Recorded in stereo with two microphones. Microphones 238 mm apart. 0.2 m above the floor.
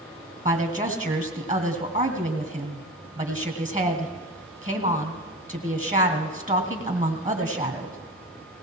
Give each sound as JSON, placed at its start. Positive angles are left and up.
{"t": 0.5, "sound": "a woman speaking", "side_deg": -35, "distance_m": 1.7}